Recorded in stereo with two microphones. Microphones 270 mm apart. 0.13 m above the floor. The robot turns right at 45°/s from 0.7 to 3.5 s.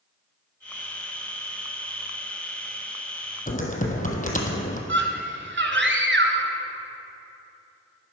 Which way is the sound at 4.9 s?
45° right (ahead or behind).